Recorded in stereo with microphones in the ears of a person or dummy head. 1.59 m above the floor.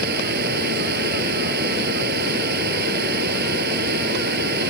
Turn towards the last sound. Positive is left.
turn(degrees=-60)  # may be behind; listen again after turning